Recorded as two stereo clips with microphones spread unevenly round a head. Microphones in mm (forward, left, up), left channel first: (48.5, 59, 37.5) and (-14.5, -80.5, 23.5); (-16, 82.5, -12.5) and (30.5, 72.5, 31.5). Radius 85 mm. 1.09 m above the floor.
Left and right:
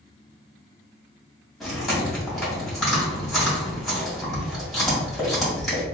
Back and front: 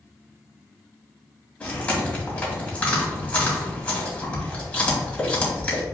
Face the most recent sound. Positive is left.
turn(degrees=155)